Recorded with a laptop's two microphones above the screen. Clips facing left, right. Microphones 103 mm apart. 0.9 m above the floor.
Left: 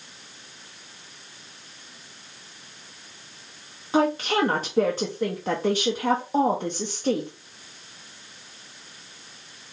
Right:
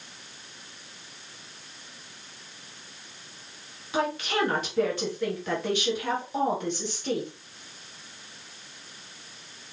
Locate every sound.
3.9 s a woman speaking: 40° left (ahead or behind), 0.6 m